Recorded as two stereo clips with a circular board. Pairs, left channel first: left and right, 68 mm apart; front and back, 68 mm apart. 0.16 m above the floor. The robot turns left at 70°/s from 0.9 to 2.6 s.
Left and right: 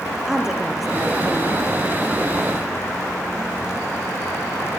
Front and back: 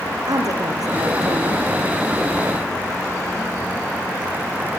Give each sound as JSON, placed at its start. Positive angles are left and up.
{"t": 0.3, "sound": "a woman speaking", "azimuth_deg": -175, "distance_m": 3.5}